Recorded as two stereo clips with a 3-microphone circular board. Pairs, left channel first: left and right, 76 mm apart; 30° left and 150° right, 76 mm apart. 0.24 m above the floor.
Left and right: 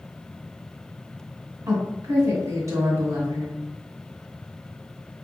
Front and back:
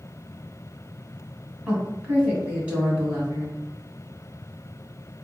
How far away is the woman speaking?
About 2 m.